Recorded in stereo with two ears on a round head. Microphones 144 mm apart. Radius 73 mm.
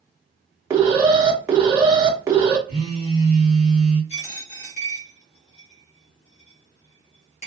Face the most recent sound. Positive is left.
turn(degrees=40)  # may be behind; listen again after turning